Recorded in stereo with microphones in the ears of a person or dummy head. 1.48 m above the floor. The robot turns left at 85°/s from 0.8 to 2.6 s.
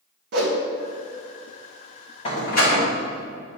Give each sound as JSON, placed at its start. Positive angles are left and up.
{"t": 0.3, "sound": "a whoosh", "side_deg": -60, "distance_m": 0.9}
{"t": 2.2, "sound": "a door slam", "side_deg": 35, "distance_m": 1.5}